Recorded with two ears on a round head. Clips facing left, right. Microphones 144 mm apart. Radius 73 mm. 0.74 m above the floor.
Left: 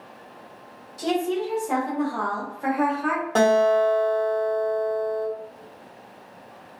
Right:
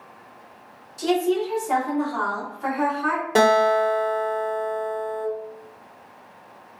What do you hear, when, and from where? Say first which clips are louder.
1.0 s a woman speaking: right 3 dB; 5° right (ahead or behind), 1.3 m; by 3.2 s 20° left (ahead or behind), 1.1 m
3.4 s a guitar: even; 15° right (ahead or behind), 0.9 m